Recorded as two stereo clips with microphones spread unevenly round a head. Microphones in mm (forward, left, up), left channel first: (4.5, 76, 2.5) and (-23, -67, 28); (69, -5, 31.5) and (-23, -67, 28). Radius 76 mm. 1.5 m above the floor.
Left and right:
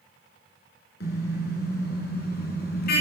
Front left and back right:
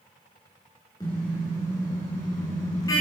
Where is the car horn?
100° left, 7.5 m; by 3.0 s 105° left, 6 m.